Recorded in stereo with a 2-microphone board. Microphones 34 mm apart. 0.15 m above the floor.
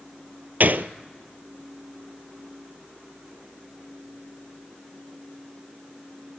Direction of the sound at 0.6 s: 60° right (ahead or behind).